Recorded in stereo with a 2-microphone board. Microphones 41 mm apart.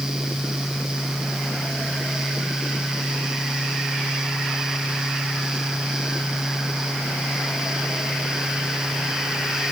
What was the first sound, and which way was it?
Only background noise.